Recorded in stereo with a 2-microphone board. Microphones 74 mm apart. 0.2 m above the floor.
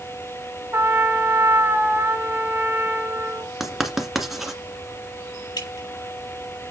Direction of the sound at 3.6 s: 5° right (ahead or behind).